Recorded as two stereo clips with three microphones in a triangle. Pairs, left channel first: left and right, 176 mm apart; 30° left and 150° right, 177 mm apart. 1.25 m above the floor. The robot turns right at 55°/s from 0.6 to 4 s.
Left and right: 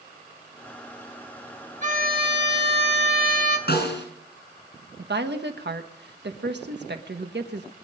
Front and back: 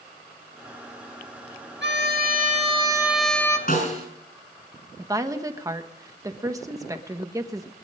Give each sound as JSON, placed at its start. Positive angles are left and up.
{"t": 1.8, "sound": "a violin", "azimuth_deg": -140, "distance_m": 1.7}
{"t": 3.7, "sound": "a snare drum", "azimuth_deg": 65, "distance_m": 5.0}
{"t": 5.0, "sound": "a woman speaking", "azimuth_deg": -80, "distance_m": 1.4}